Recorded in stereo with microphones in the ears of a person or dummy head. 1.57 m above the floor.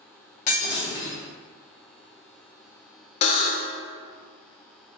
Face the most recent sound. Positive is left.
turn(degrees=40)  # may be behind; listen again after turning